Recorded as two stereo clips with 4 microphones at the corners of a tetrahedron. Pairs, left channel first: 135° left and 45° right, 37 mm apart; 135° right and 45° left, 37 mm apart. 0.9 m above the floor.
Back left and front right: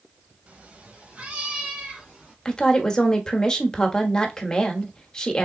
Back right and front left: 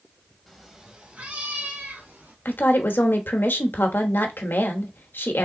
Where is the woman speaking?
155° right, 0.9 m.